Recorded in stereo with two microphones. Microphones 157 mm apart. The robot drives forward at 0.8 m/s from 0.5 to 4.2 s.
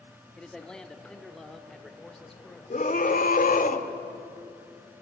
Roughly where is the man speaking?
Centre.